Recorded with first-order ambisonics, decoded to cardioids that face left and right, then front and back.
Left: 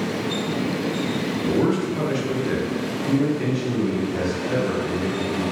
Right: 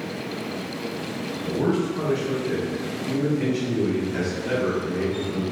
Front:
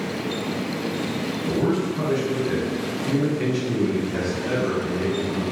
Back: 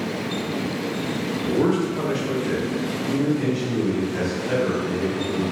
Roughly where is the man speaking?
Behind left.